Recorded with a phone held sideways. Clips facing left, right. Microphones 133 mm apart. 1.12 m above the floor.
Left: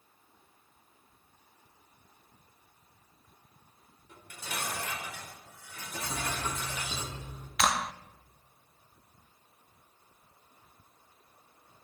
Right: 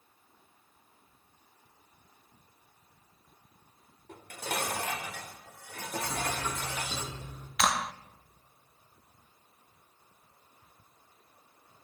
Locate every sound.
4.1 s dishes clattering: 65° right (ahead or behind), 2.5 m
6.0 s writing: 10° left (ahead or behind), 5.5 m
7.6 s a clap: 5° right (ahead or behind), 0.6 m